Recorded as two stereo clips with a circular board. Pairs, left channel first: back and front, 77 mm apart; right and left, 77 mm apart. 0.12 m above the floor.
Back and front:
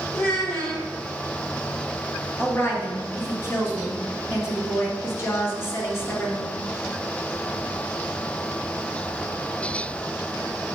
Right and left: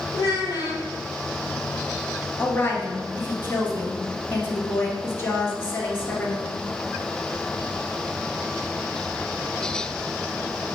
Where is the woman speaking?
140° right, 2 m.